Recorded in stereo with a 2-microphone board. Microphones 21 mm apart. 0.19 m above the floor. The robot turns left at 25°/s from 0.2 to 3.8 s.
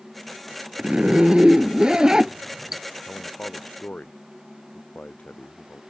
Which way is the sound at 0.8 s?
110° right.